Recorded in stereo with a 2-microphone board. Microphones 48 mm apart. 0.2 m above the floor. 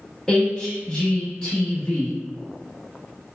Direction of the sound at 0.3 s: 15° left (ahead or behind).